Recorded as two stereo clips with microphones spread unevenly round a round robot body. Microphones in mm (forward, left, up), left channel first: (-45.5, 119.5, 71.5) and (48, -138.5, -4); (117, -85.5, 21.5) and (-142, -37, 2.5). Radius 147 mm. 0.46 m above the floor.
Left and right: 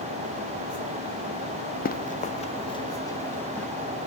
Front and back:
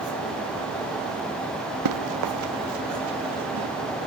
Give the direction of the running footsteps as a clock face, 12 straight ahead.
6 o'clock.